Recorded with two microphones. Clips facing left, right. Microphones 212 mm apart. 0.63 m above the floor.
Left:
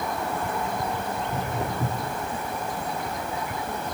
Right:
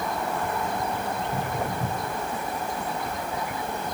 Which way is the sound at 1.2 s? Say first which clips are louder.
Even; 25° left (ahead or behind).